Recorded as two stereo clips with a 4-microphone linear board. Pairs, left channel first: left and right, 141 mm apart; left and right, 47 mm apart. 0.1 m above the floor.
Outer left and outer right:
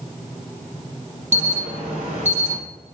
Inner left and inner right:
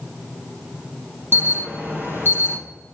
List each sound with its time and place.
1.3 s an alarm: 60° right (ahead or behind), 4 m